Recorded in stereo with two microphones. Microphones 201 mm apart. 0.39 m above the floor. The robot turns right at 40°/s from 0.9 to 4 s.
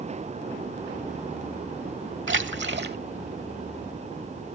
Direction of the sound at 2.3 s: 70° right (ahead or behind).